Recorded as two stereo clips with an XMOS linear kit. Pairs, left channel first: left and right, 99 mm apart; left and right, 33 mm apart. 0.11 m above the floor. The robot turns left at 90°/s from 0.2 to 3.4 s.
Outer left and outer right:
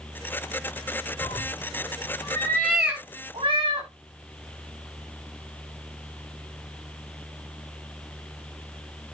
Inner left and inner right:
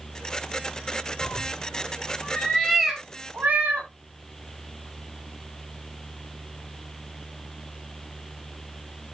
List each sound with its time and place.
1.2 s a cat meowing: 40° left (ahead or behind), 4 m; by 3.9 s 60° right (ahead or behind), 4 m